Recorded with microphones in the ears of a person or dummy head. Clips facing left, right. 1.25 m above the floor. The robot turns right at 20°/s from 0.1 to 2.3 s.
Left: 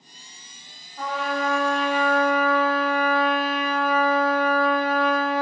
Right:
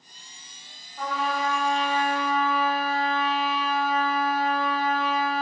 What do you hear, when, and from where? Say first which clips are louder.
1.0 s a trumpet: left 1 dB; centre (ahead or behind), 0.9 m; by 5.4 s 20° left (ahead or behind), 0.9 m